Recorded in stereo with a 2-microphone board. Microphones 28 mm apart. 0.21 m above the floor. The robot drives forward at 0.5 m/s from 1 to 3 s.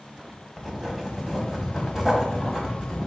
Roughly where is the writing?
Centre.